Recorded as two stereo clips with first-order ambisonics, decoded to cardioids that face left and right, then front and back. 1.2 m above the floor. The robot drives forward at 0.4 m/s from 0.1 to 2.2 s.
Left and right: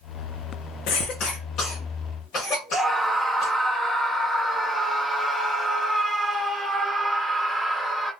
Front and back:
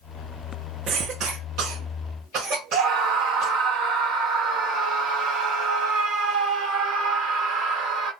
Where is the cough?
120° left, 0.5 m; by 3.6 s 150° left, 0.9 m.